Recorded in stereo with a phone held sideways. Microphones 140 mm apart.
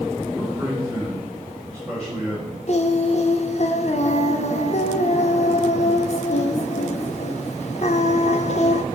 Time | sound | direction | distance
0.3 | a man speaking | 5° left (ahead or behind) | 3.5 m
2.7 | singing | 50° left (ahead or behind) | 0.7 m